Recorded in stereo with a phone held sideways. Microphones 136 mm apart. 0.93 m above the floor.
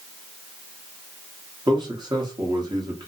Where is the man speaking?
30° right (ahead or behind), 0.9 m.